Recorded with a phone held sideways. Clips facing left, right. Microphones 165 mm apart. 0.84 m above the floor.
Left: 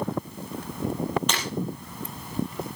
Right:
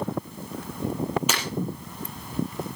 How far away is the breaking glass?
About 5 m.